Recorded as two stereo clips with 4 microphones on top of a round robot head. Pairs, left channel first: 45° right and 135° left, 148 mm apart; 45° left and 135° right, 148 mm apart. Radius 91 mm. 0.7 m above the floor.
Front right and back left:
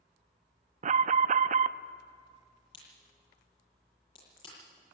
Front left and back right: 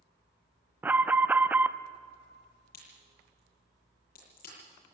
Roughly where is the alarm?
Behind left.